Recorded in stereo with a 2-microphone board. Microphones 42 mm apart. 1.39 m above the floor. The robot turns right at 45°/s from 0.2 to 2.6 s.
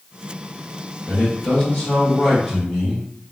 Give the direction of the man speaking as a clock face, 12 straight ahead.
8 o'clock.